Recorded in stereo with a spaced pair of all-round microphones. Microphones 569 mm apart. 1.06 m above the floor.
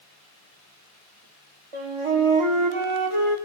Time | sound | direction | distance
1.7 | a flute | 60° right (ahead or behind) | 0.9 m